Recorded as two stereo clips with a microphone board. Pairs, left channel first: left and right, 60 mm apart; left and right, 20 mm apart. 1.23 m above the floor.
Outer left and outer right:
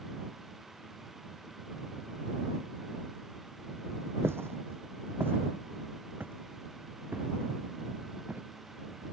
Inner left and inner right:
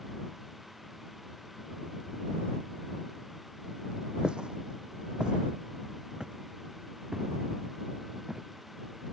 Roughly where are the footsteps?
Right.